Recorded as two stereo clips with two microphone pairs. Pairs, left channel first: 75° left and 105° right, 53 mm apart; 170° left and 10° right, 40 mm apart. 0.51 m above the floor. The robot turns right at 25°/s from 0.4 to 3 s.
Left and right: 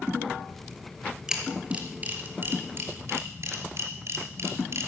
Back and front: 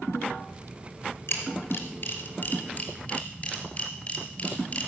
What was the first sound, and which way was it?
A camera shutter, straight behind.